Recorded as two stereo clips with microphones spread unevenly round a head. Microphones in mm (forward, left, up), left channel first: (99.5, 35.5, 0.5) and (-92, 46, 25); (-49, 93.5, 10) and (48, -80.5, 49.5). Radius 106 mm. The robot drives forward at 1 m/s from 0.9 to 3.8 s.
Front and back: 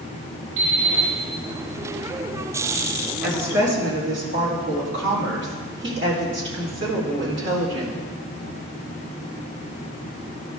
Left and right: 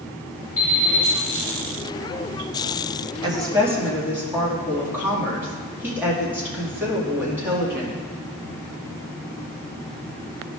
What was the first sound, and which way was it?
An alarm clock, 165° right.